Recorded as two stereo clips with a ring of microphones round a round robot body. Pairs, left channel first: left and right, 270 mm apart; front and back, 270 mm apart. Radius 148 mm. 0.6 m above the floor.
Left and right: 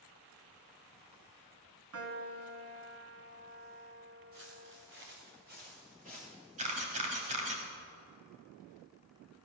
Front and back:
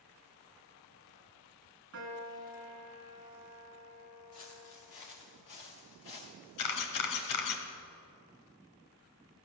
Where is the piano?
125° right, 1.8 m.